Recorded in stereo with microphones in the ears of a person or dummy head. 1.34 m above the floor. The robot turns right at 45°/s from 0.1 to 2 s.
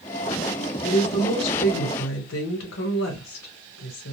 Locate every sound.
0.8 s a woman speaking: 40° left, 1.1 m; by 4.1 s 95° left, 1.1 m